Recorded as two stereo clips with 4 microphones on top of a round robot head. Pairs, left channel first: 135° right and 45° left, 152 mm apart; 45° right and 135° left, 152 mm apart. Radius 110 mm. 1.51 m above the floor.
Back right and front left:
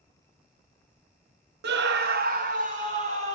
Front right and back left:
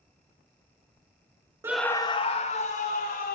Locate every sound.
1.6 s a scream: 60° left, 0.6 m; by 3.4 s 5° right, 3 m